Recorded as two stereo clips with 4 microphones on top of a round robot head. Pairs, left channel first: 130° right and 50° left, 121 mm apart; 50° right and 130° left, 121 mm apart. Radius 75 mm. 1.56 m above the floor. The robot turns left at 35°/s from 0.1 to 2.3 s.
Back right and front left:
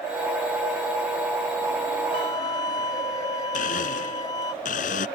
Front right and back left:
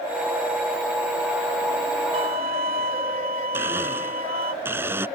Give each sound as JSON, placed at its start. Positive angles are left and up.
{"t": 2.1, "sound": "a violin", "azimuth_deg": 175}
{"t": 3.5, "sound": "a blender", "azimuth_deg": -155}